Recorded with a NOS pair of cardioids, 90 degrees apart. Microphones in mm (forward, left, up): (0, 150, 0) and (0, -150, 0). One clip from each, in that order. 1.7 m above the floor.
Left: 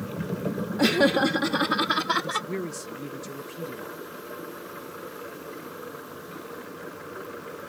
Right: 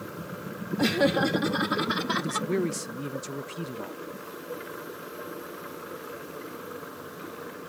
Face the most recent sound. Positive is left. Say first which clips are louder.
# even
turn(degrees=-30)